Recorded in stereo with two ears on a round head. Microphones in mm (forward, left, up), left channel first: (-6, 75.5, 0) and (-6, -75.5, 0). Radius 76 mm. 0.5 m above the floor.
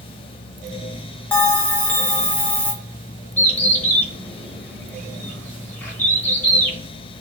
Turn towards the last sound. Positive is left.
turn(degrees=10)  # may be behind; listen again after turning